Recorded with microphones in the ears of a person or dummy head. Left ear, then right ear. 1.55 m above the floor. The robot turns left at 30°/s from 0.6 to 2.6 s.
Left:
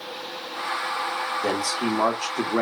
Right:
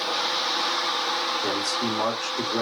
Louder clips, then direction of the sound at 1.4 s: Even; 130° left.